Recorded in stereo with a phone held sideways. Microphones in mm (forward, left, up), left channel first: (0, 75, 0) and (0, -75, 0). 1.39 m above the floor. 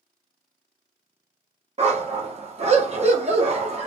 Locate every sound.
1.8 s a dog barking: 45° right (ahead or behind), 1.0 m